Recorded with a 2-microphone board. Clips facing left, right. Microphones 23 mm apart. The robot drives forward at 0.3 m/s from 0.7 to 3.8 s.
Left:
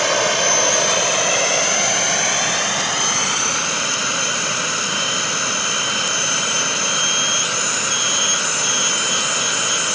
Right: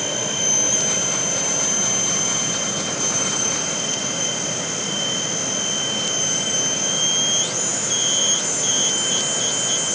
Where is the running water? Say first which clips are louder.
Left 6 dB; 65° left (ahead or behind), 1.3 m; by 9.9 s 40° left (ahead or behind), 1.9 m.